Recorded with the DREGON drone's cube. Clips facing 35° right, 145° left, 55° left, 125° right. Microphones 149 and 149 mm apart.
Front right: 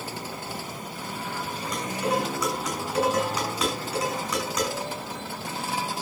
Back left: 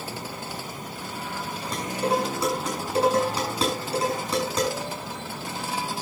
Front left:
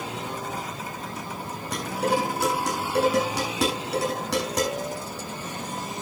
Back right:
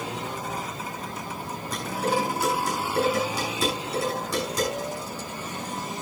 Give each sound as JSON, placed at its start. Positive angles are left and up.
{"t": 1.7, "sound": "dishes clattering", "azimuth_deg": 85, "distance_m": 7.0}